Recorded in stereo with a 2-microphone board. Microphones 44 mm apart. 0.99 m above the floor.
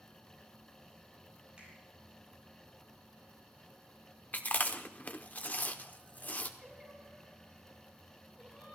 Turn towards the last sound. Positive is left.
turn(degrees=-25)  # may be behind; listen again after turning